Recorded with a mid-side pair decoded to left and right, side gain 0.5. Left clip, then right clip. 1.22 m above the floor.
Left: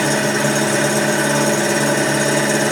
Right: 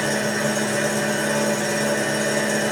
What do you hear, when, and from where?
0.0 s an engine running: 50° left, 0.8 m